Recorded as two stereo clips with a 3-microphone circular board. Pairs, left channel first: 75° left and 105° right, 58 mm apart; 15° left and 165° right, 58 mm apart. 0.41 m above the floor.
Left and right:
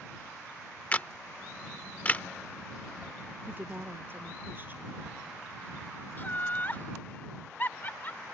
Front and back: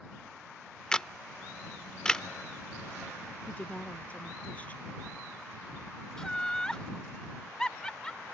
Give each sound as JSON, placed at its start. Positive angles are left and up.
{"t": 0.9, "sound": "a camera shutter", "azimuth_deg": 80}
{"t": 3.5, "sound": "a woman speaking", "azimuth_deg": -50}
{"t": 6.2, "sound": "laughter", "azimuth_deg": 85}